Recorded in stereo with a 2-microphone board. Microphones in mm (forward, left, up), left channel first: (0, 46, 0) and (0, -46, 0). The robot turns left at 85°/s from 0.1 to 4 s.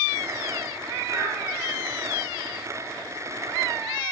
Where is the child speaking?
25° right (ahead or behind), 1.2 m; by 1.3 s 20° right (ahead or behind), 1.2 m.